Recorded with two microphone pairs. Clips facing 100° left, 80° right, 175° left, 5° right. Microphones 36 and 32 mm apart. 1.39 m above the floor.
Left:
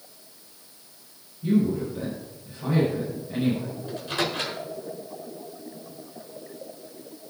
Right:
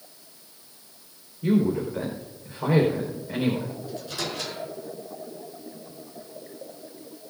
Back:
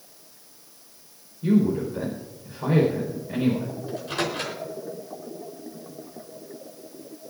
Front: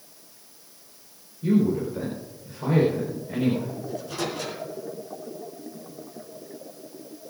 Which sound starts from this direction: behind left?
A microwave, at 3.9 s.